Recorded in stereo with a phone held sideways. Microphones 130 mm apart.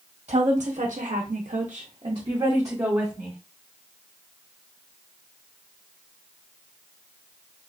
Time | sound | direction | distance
0.3 | a woman speaking | 55° right (ahead or behind) | 0.9 m